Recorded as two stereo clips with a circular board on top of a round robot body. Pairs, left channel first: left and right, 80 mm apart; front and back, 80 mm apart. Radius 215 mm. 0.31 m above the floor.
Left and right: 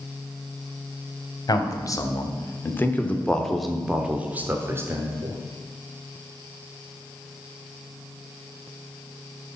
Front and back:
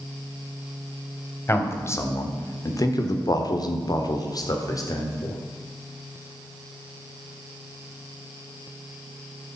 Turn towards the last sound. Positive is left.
turn(degrees=-45)